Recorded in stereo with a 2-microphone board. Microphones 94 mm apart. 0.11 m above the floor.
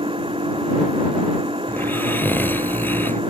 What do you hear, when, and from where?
0.0 s an engine running: 75° right (ahead or behind)
1.7 s snoring: 25° left (ahead or behind)